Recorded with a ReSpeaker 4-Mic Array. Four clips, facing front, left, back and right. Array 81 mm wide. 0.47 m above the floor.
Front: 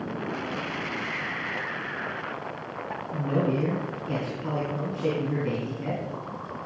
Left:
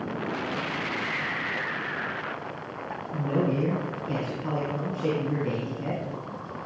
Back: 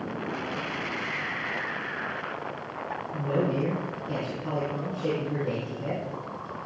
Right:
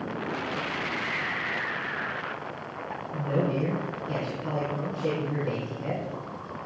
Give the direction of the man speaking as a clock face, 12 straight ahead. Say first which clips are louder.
Left 1 dB, front 1 dB; 11 o'clock.